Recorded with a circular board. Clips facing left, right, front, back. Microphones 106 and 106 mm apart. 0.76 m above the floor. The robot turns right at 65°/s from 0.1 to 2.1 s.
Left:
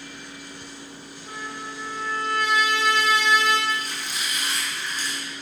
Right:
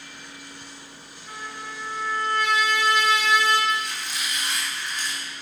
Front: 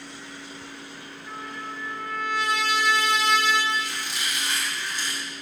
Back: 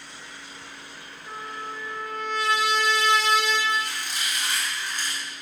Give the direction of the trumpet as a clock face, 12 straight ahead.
9 o'clock.